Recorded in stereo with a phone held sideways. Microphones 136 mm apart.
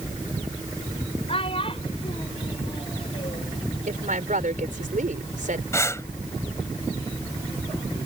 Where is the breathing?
20° left (ahead or behind).